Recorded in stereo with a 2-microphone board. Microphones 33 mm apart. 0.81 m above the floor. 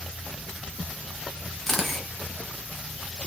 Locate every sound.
1.7 s a camera shutter: 10° left (ahead or behind), 0.6 m